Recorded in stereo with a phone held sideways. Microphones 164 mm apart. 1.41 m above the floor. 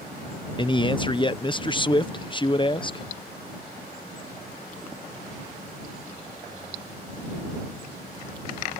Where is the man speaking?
30° left (ahead or behind).